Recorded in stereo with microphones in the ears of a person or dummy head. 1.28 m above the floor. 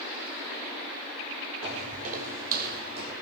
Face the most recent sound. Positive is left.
turn(degrees=-65)  # may be behind; listen again after turning